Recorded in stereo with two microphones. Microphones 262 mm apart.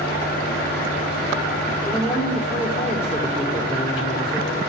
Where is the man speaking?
Centre (ahead or behind), 4.5 m.